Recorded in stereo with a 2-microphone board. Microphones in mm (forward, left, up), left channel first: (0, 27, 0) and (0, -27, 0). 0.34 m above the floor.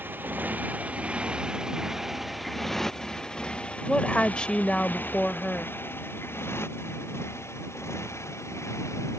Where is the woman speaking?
20° left (ahead or behind).